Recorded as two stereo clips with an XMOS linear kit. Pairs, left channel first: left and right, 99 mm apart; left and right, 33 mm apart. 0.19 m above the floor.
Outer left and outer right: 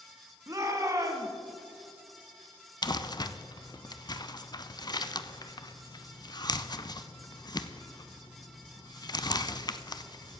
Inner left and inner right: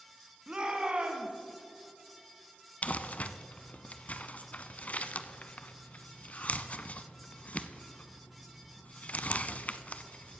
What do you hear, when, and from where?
0.5 s a shout: 35° right (ahead or behind), 1.8 m
2.8 s crumpling: 45° left (ahead or behind), 0.5 m